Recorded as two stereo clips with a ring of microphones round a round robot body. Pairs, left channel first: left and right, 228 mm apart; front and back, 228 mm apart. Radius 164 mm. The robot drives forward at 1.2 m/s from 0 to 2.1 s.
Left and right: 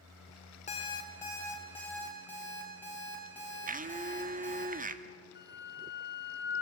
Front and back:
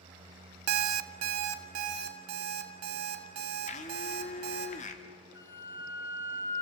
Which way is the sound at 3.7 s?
50° right.